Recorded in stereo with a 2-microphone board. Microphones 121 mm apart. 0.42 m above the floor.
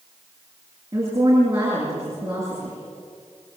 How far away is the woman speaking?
About 7.5 m.